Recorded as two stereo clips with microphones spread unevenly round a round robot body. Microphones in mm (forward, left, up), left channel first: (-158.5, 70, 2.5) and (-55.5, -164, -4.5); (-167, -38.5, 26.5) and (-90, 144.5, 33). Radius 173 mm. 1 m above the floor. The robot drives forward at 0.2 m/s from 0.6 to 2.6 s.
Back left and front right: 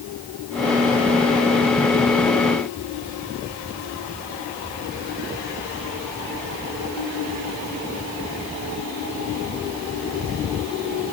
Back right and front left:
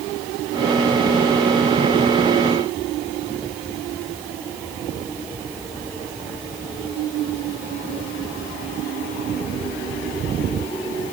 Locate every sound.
Only background noise.